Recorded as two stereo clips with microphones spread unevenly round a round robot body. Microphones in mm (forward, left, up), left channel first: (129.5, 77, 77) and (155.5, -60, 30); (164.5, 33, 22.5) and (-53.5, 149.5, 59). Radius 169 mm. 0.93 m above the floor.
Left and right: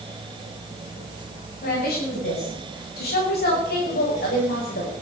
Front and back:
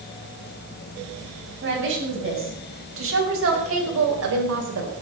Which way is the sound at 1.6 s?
110° left.